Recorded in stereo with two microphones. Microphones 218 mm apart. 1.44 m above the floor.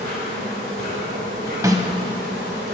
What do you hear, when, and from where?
0.0 s an insect: 50° right (ahead or behind), 3.5 m
1.6 s a snare drum: 15° right (ahead or behind), 0.7 m